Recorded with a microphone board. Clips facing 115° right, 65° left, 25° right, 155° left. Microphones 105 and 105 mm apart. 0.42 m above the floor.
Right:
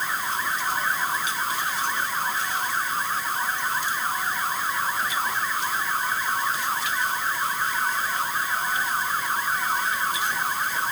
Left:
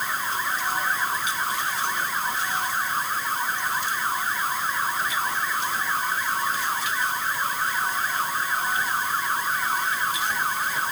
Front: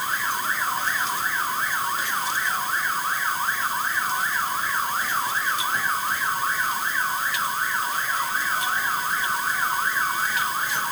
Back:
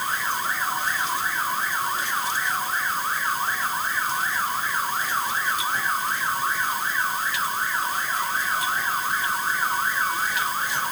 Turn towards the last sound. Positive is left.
No sound to turn to.